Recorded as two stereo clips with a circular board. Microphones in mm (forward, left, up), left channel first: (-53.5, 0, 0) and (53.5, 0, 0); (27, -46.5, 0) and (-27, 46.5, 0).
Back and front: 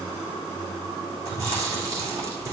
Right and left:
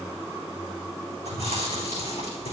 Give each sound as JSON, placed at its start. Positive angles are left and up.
{"t": 1.2, "sound": "chewing", "azimuth_deg": -60, "distance_m": 5.0}